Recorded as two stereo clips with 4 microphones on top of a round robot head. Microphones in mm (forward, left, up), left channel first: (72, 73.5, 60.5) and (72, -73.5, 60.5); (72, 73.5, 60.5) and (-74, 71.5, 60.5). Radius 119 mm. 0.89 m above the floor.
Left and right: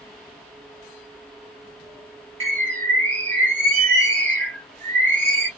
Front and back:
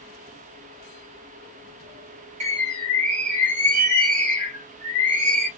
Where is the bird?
135° right, 2.0 m.